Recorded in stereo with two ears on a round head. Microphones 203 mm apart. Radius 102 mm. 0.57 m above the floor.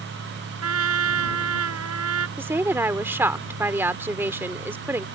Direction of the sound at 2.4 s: 10° right (ahead or behind).